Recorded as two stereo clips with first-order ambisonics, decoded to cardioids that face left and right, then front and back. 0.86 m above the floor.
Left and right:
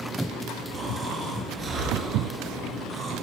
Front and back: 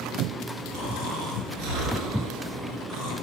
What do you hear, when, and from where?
0.7 s snoring: 155° right, 3.5 m